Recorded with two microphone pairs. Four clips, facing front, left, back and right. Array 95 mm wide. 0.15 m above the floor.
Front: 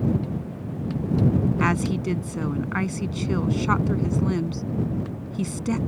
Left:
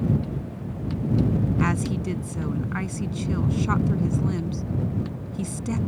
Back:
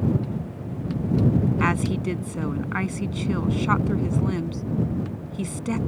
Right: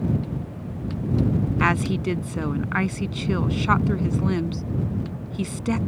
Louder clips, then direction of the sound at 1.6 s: Right 3 dB, even; 85° right.